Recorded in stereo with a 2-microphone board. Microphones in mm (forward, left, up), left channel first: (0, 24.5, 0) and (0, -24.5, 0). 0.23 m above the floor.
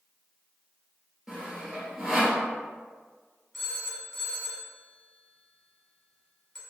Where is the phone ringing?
5° left (ahead or behind), 1.2 m.